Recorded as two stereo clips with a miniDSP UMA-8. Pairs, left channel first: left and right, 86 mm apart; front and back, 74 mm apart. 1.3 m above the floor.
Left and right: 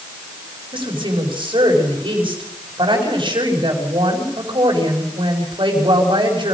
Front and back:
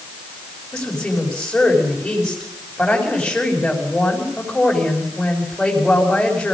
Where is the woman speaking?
80° right, 6.5 m.